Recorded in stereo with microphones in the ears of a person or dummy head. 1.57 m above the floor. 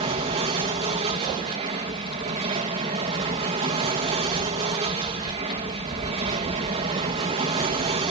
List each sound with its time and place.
0.0 s an aircraft: 30° right (ahead or behind)